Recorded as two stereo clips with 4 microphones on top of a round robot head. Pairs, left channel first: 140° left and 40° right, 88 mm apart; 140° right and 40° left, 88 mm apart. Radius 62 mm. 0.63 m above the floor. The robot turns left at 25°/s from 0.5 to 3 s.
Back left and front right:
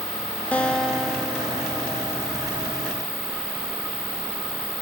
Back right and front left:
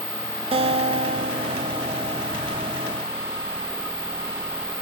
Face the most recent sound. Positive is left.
turn(degrees=0)